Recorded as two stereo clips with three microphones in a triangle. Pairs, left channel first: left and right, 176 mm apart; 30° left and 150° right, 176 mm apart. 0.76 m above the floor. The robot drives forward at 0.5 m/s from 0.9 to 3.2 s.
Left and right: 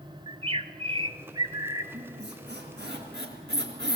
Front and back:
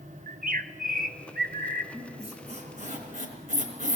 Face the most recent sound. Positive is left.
turn(degrees=-105)